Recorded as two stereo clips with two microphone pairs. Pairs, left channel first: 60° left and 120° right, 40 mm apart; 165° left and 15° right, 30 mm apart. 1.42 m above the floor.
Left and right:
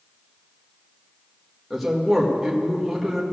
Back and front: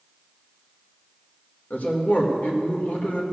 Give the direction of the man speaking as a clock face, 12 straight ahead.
7 o'clock.